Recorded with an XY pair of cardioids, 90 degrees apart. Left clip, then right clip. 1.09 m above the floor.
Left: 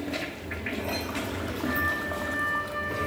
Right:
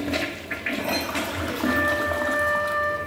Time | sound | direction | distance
1.6 | a flute | 70° right | 2.5 m